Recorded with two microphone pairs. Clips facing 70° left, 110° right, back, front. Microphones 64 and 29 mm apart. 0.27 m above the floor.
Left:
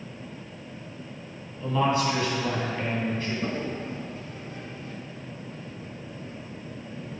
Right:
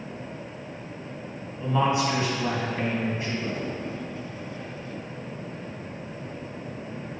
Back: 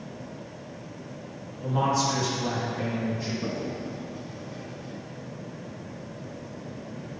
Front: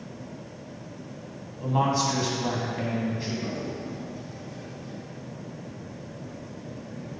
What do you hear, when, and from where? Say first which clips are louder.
1.6 s a man speaking: even, front 1 dB; 45° right, 2.5 m
3.4 s a toilet flushing: even, back 1 dB; 115° left, 0.9 m